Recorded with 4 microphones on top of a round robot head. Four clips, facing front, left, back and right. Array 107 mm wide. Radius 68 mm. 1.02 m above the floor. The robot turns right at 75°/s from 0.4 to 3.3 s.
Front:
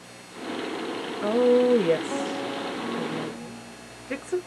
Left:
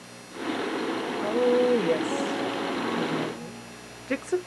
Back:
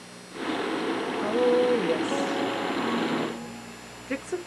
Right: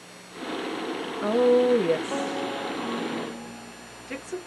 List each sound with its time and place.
1.2 s a woman speaking: 65° right, 0.7 m; by 4.4 s 90° left, 0.7 m